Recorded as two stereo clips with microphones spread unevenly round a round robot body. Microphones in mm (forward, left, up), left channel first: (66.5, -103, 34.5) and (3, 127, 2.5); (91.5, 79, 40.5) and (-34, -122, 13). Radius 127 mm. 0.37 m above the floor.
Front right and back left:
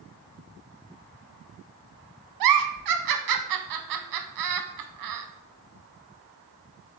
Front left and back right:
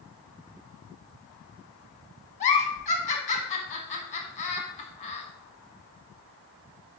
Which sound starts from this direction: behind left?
A giggle, at 2.4 s.